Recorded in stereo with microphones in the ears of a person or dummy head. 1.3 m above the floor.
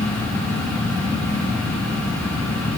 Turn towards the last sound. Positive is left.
turn(degrees=10)  # may be behind; listen again after turning